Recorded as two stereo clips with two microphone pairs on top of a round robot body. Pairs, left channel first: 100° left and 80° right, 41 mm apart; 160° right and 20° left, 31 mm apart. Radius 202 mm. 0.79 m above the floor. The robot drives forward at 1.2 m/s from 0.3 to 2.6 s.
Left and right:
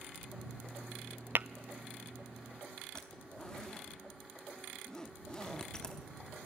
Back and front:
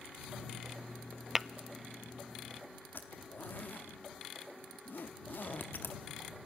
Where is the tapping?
60° right, 0.5 m; by 1.5 s 85° right, 0.5 m.